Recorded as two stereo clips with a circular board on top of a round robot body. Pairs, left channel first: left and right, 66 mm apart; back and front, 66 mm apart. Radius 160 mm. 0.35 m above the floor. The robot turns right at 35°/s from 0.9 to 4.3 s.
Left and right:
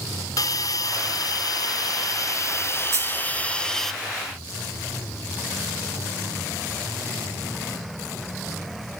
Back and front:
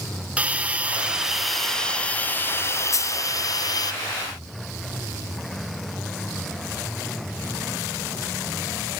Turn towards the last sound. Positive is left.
turn(degrees=-90)